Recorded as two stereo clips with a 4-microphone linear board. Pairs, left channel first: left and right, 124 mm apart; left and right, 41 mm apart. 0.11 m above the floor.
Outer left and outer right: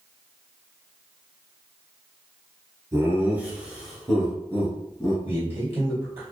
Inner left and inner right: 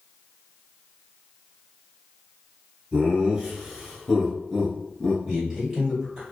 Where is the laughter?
25° right (ahead or behind), 1.3 m; by 5.2 s 30° left (ahead or behind), 1.2 m.